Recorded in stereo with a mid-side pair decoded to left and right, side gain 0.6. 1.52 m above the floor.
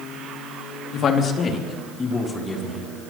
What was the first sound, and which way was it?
A man speaking, 50° left.